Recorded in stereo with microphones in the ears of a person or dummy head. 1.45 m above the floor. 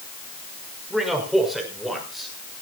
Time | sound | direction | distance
0.9 | a man speaking | centre (ahead or behind) | 5 m